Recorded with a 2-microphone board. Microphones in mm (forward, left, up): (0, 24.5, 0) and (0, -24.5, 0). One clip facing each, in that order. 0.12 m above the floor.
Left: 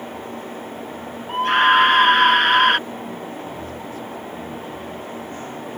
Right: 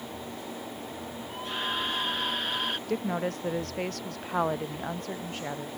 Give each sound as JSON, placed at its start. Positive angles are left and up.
{"t": 1.3, "sound": "a scream", "side_deg": 65}
{"t": 2.9, "sound": "a woman speaking", "side_deg": -75}